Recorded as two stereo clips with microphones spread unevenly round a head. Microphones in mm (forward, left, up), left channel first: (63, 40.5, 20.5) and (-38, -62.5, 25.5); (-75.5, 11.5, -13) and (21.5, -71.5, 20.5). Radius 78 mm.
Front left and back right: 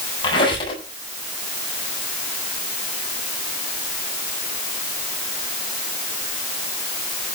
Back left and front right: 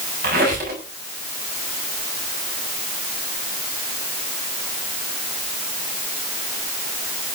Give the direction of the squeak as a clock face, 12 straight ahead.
12 o'clock.